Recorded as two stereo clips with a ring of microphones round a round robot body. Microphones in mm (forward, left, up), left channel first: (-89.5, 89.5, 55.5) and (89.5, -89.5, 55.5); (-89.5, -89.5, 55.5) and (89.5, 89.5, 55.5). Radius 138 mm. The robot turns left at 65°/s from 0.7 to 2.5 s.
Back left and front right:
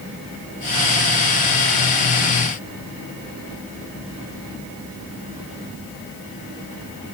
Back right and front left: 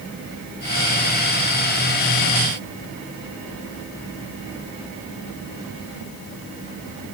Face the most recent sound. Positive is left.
No sound to turn to.